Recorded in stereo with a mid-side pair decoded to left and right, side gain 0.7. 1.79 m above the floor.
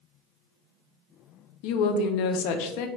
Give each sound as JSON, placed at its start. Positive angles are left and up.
{"t": 1.6, "sound": "a woman speaking", "azimuth_deg": 70, "distance_m": 0.6}